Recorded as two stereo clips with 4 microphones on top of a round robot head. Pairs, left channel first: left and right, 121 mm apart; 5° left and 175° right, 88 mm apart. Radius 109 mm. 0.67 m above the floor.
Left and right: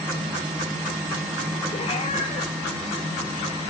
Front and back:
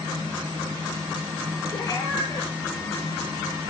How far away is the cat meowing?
About 8 m.